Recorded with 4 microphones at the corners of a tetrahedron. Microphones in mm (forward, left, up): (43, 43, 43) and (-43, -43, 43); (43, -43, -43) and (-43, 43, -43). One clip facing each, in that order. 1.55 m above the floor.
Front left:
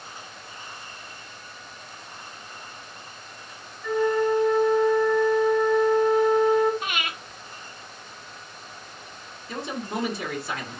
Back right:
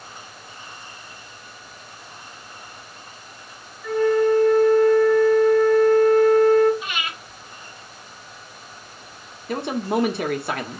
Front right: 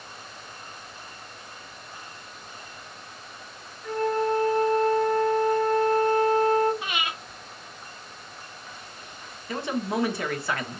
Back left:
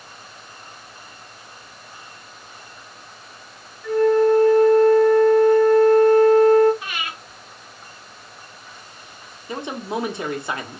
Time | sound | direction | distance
3.8 | a flute | 35° right | 1.6 m
6.8 | breathing | 20° left | 1.4 m
9.5 | a man speaking | 155° right | 1.1 m